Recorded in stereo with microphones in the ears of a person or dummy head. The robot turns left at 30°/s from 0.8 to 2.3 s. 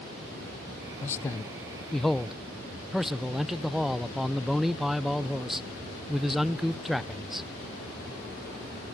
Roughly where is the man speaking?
Ahead left.